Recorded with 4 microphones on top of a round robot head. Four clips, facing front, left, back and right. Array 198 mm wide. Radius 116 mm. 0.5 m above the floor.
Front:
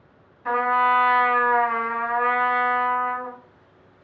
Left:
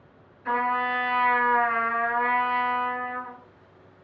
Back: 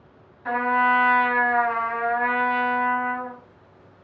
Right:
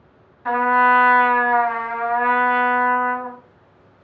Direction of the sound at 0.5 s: 90° right.